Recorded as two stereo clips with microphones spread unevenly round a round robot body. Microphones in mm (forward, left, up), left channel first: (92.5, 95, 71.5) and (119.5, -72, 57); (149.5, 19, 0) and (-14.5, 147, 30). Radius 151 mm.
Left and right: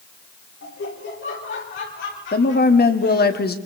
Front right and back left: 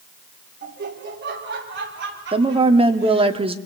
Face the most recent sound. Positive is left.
turn(degrees=75)